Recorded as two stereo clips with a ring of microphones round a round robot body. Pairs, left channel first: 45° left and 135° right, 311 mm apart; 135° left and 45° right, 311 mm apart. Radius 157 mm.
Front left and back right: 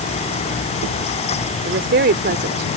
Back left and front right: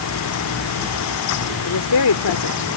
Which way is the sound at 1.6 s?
170° left.